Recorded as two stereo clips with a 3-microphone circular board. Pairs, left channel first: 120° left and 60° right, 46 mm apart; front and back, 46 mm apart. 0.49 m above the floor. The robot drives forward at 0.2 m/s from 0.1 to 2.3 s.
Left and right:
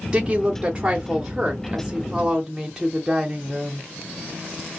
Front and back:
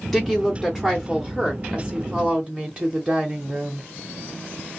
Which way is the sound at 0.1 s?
80° right.